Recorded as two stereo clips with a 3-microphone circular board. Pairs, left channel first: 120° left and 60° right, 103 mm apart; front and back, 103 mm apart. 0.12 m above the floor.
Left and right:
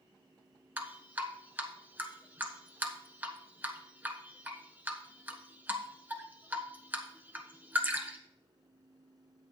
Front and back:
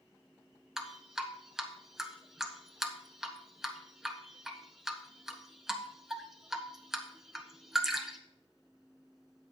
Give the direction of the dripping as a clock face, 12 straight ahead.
3 o'clock.